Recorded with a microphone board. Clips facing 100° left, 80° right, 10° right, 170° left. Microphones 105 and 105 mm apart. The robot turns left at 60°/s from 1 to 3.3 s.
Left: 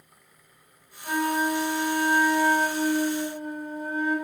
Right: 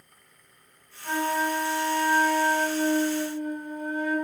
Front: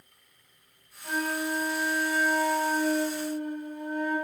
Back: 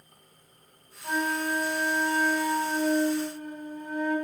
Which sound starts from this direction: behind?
A flute, at 1.0 s.